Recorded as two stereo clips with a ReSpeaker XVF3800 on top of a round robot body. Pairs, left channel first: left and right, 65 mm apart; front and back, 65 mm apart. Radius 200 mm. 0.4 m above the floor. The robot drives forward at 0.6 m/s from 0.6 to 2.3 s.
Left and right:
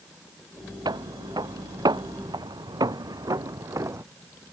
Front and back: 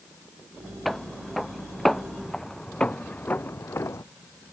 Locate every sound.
0.8 s footsteps: 90° right; by 4.0 s 45° right